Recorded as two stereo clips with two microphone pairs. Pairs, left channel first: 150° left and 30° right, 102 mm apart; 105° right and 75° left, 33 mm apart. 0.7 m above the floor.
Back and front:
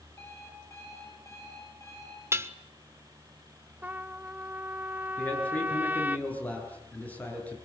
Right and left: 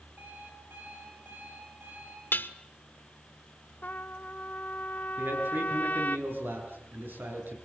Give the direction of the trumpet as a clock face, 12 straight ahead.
3 o'clock.